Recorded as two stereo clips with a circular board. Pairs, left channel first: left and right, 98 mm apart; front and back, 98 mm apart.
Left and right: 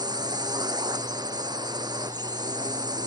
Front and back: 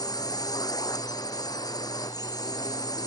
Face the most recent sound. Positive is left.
turn(degrees=-45)